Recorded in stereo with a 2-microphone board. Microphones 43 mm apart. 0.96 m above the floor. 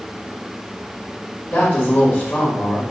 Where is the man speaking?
35° left (ahead or behind), 2.5 m.